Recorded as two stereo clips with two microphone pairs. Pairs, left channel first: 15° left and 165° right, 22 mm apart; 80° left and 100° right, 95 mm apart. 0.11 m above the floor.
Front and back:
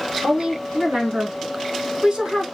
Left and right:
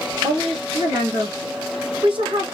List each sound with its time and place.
0.2 s a woman speaking: 115° right, 3.5 m